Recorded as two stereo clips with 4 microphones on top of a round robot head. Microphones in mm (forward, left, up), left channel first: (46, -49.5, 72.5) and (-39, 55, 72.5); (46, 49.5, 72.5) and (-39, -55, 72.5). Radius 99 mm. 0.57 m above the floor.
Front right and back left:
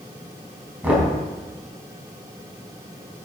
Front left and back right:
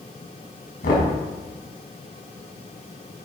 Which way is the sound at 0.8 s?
50° left.